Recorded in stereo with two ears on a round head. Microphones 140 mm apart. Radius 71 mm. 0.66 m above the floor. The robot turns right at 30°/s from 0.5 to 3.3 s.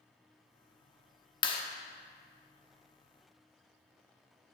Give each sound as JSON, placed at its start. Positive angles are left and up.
{"t": 1.4, "sound": "a clap", "side_deg": 30, "distance_m": 0.7}